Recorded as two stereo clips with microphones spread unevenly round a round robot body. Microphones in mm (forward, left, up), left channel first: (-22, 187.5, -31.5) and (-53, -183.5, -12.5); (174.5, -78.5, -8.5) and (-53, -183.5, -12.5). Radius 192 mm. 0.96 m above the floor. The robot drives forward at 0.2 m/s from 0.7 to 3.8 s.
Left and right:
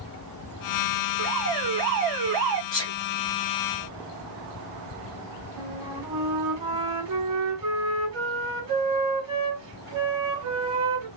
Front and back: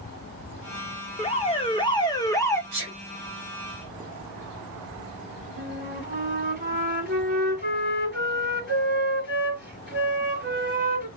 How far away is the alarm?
About 1.0 m.